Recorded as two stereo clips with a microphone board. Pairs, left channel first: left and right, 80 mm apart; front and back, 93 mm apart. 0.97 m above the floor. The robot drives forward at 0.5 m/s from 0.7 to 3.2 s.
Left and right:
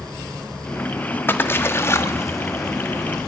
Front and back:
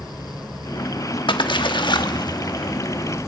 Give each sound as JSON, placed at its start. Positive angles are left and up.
{"t": 1.3, "sound": "a splash", "azimuth_deg": 25, "distance_m": 1.6}